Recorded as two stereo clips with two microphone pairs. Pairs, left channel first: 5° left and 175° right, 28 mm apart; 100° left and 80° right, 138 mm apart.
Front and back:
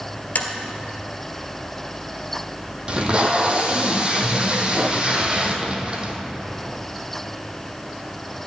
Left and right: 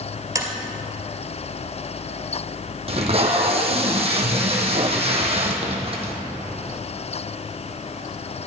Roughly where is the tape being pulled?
Behind right.